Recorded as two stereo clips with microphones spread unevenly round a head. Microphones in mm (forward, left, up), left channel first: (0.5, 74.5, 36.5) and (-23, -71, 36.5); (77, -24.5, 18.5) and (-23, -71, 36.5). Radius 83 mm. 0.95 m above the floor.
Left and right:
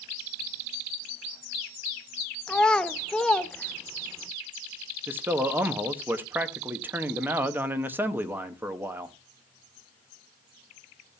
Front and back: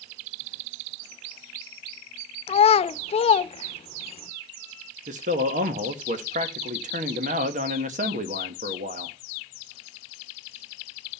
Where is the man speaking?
175° right, 1.2 m.